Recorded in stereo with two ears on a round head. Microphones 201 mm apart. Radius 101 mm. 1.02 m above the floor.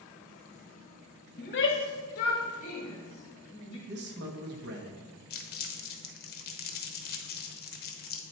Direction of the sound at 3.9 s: 50° right (ahead or behind).